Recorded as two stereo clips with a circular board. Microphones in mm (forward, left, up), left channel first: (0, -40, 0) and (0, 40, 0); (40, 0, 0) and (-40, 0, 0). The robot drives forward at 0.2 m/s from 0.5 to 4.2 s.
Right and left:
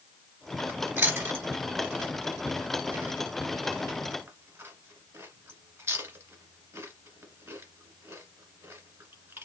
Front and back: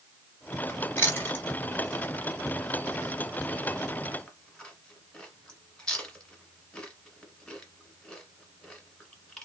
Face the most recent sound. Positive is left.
turn(degrees=70)